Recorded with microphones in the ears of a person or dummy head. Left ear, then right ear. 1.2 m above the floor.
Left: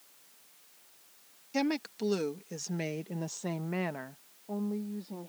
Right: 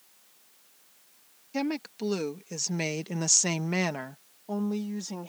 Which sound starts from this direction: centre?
A woman speaking, at 1.5 s.